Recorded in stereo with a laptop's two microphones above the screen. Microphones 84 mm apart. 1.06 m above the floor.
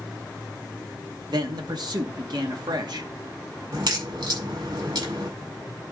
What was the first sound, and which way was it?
A man speaking, 65° right (ahead or behind).